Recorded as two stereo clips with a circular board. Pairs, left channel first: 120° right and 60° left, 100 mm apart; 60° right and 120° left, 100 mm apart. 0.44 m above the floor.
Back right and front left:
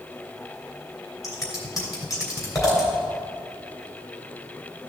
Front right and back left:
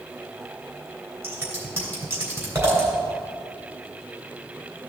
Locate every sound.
1.2 s scissors: 175° right, 2.5 m